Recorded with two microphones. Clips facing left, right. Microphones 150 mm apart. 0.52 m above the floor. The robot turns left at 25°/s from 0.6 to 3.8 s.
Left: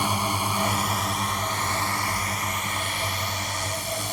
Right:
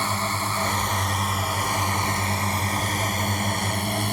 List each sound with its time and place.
0.0 s a drone: 15° left; by 4.1 s 65° right